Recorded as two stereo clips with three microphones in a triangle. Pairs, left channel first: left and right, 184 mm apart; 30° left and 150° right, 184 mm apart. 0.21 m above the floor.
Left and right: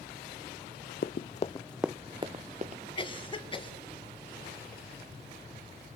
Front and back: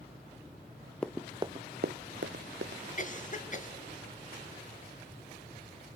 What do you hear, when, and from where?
1.0 s running footsteps: 115° left, 0.8 m; by 2.8 s 140° right, 1.5 m
3.0 s a cough: 40° left, 1.9 m